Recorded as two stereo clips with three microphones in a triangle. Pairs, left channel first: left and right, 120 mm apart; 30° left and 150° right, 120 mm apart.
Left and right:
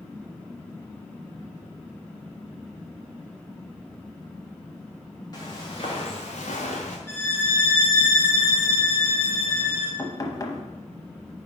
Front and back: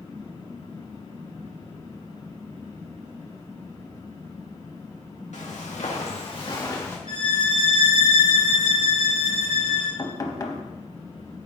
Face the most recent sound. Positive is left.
turn(degrees=60)